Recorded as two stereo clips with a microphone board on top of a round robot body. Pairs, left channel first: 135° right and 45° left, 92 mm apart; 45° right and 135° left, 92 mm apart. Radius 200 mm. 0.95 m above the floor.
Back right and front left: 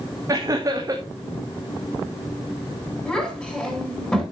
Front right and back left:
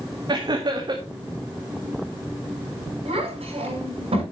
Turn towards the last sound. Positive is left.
turn(degrees=140)